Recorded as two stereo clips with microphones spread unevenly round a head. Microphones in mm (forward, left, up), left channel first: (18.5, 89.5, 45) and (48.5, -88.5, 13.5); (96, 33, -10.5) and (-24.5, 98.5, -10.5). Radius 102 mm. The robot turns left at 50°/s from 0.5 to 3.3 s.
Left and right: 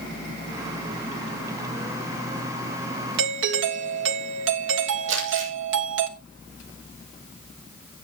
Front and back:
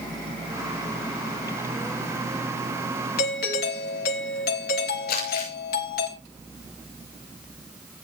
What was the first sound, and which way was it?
A doorbell, 55° right.